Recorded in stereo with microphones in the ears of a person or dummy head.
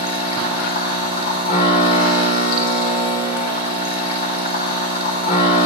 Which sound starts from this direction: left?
A machine running, at 0.0 s.